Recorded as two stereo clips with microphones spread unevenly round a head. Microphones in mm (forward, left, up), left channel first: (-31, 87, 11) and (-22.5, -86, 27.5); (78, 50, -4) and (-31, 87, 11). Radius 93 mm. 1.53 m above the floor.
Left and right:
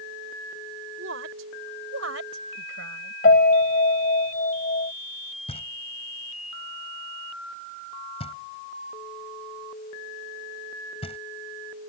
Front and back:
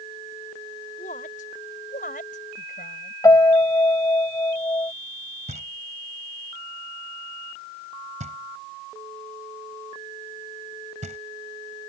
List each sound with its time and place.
1.0 s a woman speaking: 65° right
3.2 s a piano: 45° left
5.5 s knocking: 150° left